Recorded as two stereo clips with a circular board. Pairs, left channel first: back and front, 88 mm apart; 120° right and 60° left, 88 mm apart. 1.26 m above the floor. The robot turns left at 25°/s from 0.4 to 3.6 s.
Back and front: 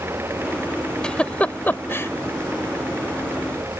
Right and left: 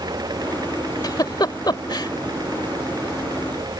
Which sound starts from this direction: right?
A giggle, at 1.0 s.